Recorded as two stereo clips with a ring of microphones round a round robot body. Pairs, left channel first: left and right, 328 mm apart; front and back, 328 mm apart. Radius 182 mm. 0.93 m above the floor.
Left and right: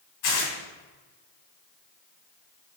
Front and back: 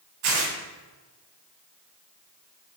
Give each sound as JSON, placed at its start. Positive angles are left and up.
{"t": 0.2, "sound": "tearing paper", "azimuth_deg": 135, "distance_m": 2.5}